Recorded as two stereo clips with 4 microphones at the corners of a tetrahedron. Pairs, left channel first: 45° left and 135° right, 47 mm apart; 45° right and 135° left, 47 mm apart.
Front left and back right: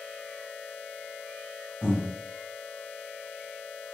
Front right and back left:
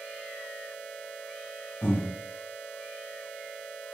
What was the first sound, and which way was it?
Breathing, 70° right.